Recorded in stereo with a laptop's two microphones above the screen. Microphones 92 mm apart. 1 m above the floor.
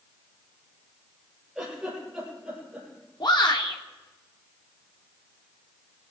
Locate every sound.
1.6 s a giggle: 5° right (ahead or behind), 10 m
3.2 s a shout: 55° left (ahead or behind), 2 m